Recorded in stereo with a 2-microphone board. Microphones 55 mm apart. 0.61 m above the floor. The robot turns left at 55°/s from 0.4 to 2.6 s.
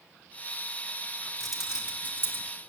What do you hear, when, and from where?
1.4 s keys jangling: centre (ahead or behind), 1.3 m; by 2.5 s 50° right (ahead or behind), 1.3 m